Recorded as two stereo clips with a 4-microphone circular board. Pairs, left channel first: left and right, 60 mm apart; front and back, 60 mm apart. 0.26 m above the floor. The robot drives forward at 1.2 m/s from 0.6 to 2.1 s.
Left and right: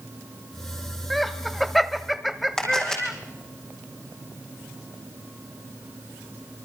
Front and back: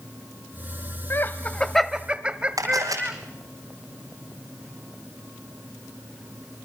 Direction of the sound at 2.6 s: 170° left.